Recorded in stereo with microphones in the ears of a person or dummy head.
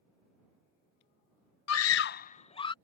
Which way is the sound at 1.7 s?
80° left.